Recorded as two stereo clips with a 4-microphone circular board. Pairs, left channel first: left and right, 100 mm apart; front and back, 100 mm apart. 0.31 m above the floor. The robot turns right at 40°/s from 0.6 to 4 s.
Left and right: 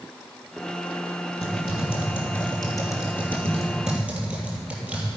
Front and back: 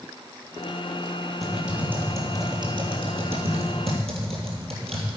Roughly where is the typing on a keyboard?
Left.